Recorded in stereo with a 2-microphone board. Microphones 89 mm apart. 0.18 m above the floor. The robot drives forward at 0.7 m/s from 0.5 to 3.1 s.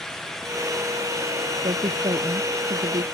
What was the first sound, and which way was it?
A woman speaking, 75° right (ahead or behind).